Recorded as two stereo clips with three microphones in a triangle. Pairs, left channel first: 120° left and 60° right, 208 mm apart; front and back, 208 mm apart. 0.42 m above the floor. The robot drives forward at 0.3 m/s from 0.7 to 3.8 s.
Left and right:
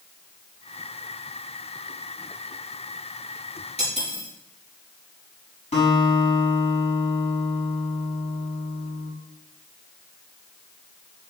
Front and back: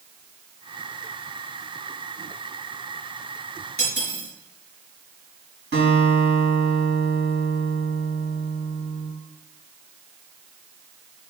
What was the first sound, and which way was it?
Cutlery clinking, 175° right.